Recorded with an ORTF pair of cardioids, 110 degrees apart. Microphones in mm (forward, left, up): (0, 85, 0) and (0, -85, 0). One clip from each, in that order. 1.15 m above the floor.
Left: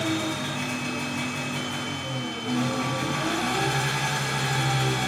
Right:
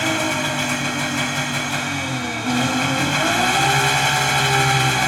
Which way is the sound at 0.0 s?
65° right.